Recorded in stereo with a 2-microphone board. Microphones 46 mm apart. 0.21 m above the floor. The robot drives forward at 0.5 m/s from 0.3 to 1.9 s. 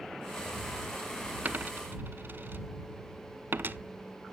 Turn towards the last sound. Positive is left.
turn(degrees=-55)  # may be behind; listen again after turning